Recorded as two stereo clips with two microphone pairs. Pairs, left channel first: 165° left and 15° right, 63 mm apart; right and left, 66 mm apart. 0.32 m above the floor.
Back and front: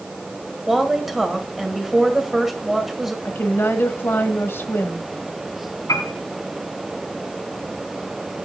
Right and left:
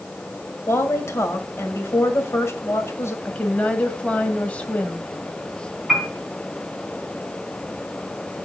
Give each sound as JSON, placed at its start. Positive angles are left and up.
{"t": 0.7, "sound": "a woman speaking", "azimuth_deg": -100, "distance_m": 1.7}
{"t": 3.2, "sound": "a woman speaking", "azimuth_deg": -155, "distance_m": 1.6}
{"t": 5.9, "sound": "a piano", "azimuth_deg": 175, "distance_m": 3.5}